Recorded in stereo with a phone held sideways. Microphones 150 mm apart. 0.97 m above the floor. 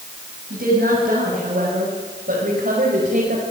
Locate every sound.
0.5 s a woman speaking: 85° right, 7.5 m; by 3.4 s 70° right (ahead or behind), 5.5 m